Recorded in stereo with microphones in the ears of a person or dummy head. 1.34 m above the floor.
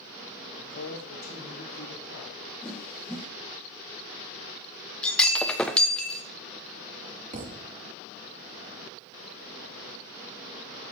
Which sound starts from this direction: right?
A thud, at 7.3 s.